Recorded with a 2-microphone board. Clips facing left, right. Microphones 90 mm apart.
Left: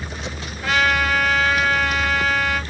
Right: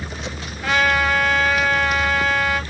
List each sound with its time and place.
0.6 s a trumpet: centre (ahead or behind), 2.5 m